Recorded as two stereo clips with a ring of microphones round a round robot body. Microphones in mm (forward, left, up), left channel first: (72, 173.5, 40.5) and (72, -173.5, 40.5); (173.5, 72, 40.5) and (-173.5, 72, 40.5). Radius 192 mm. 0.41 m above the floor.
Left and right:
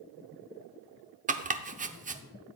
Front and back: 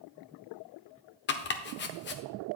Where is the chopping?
35° right, 0.8 m.